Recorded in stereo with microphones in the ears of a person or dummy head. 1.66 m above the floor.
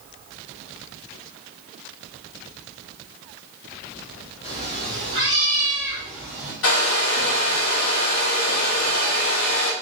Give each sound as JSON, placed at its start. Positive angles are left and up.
{"t": 4.4, "sound": "a cat meowing", "side_deg": 25, "distance_m": 1.2}
{"t": 6.6, "sound": "a hair dryer", "side_deg": 70, "distance_m": 1.3}